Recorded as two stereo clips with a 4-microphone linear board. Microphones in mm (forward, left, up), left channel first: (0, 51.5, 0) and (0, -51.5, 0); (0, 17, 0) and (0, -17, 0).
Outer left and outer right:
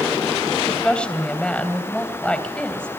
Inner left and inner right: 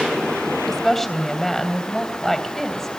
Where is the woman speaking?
10° left (ahead or behind), 3 m.